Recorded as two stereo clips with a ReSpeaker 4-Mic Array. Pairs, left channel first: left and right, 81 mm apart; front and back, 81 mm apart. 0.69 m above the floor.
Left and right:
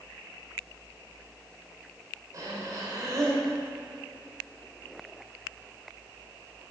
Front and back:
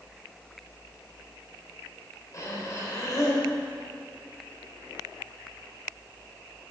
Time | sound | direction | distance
2.3 | breathing | 45° right | 3 m